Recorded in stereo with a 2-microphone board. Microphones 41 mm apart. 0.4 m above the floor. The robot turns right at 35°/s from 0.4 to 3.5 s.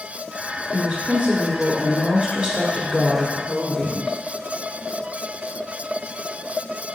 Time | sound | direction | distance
0.7 | a woman speaking | 105° right | 1.0 m